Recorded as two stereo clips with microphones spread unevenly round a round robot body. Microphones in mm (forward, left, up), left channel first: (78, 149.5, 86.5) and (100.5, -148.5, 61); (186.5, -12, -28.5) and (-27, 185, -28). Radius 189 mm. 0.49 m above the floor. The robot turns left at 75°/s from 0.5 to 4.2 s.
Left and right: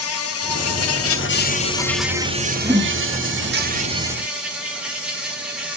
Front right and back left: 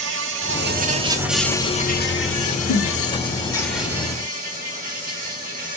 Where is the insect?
110° left, 1.2 m; by 5.8 s 165° right, 1.2 m.